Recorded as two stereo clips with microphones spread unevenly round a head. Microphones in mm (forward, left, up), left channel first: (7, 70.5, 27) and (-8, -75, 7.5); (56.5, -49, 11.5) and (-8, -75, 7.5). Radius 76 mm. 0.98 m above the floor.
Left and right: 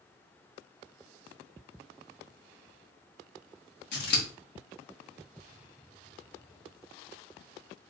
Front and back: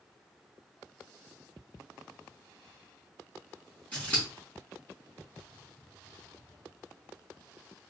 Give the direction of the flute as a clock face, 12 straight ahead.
No flute in this recording.